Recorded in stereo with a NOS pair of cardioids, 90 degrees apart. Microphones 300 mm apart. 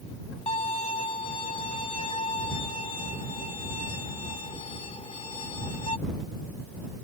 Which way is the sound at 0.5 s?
20° left.